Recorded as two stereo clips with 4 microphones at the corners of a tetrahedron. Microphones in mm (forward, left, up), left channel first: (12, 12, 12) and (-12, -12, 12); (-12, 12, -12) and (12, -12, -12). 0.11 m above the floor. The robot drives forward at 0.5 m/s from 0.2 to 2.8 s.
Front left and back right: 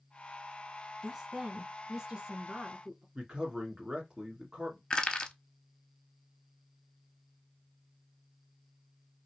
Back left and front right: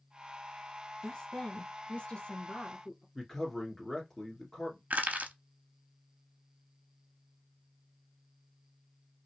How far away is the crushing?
About 0.8 m.